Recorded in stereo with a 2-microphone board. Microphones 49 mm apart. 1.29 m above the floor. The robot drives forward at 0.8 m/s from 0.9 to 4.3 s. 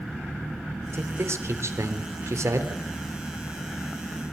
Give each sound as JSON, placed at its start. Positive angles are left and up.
{"t": 0.9, "sound": "a man speaking", "side_deg": -65, "distance_m": 3.5}